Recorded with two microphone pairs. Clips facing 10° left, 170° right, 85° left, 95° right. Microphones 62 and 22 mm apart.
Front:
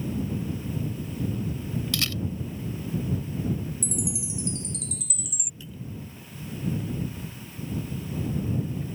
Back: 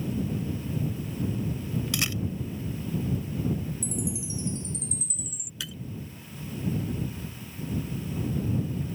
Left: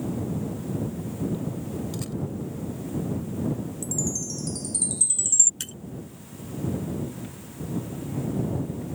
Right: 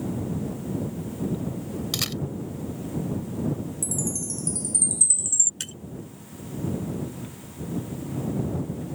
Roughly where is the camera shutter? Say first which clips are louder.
Even, right 5 dB; right.